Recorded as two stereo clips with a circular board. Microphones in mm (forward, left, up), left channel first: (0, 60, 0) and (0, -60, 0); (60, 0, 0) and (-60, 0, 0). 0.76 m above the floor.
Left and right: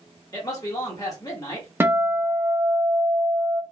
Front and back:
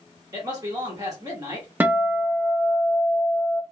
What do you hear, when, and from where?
0.3 s a man speaking: 135° left, 1.5 m
1.8 s a guitar: 130° right, 0.5 m